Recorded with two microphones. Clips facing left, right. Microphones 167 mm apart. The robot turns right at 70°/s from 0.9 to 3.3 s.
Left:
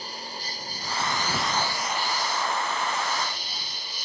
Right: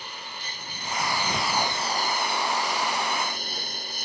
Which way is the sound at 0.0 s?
145° left.